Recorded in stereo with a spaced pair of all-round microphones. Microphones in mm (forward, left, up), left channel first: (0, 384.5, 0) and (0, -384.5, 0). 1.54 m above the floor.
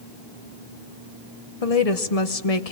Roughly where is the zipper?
No zipper in this recording.